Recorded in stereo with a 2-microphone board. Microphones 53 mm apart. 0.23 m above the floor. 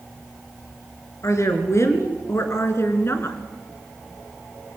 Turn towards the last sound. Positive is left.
turn(degrees=55)  # may be behind; listen again after turning